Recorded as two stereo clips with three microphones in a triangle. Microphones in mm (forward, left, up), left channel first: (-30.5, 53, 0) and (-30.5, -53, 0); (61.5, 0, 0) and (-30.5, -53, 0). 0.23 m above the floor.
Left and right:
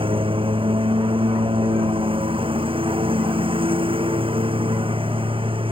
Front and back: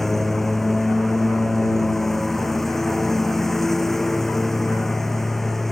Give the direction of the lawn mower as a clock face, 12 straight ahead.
2 o'clock.